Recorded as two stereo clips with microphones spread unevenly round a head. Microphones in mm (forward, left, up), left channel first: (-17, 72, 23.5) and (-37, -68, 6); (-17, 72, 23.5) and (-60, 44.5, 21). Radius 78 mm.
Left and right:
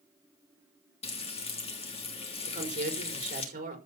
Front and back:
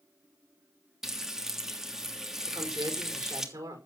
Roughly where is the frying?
Behind left.